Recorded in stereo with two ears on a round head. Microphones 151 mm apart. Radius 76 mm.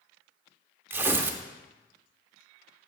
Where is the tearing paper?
15° right (ahead or behind), 0.6 m.